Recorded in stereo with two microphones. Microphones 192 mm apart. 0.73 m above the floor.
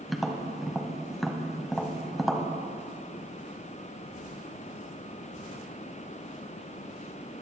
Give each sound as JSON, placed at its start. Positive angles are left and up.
{"t": 0.1, "sound": "tapping", "side_deg": 0, "distance_m": 1.2}